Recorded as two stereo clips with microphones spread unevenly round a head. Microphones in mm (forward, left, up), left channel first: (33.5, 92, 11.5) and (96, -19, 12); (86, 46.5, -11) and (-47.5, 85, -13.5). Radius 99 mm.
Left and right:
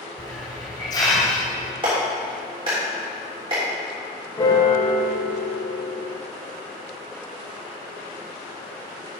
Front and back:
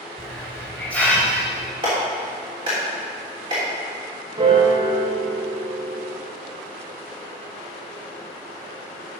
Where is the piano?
165° left, 1.7 m.